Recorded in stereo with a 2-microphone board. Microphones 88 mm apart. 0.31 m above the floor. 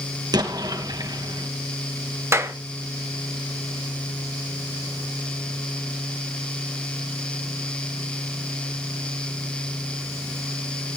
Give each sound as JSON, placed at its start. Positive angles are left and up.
{"t": 0.3, "sound": "an explosion", "side_deg": -50, "distance_m": 2.0}
{"t": 2.3, "sound": "a clap", "side_deg": -30, "distance_m": 1.1}